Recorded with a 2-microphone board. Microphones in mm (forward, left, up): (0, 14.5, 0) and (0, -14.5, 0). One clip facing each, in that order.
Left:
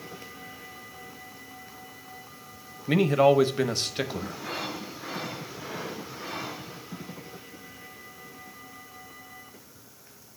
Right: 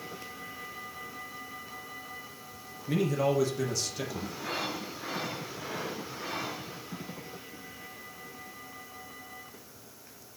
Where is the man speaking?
50° left (ahead or behind), 0.8 m.